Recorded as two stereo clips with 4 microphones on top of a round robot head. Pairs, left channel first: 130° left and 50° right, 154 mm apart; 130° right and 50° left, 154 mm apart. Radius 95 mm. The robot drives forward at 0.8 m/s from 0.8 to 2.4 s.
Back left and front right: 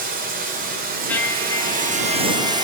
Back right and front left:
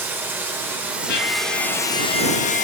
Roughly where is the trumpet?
Behind right.